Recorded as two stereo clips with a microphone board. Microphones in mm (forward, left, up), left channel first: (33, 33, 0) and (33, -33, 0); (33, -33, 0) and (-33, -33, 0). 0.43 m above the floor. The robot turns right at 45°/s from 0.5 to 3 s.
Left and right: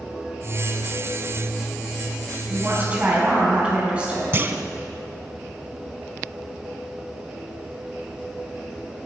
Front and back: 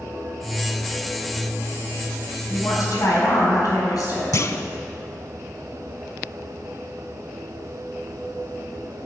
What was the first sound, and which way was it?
A woman speaking, 40° right.